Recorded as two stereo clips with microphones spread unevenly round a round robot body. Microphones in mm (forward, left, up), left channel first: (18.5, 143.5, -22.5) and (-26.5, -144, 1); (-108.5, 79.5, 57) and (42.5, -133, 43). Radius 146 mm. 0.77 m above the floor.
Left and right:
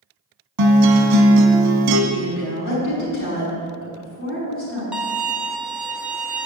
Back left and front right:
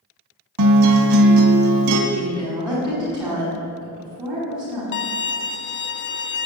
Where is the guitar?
70° right, 1.4 m.